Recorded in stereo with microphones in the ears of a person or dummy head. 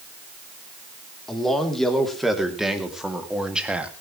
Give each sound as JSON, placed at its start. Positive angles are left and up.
{"t": 1.3, "sound": "a man speaking", "side_deg": 0, "distance_m": 3.5}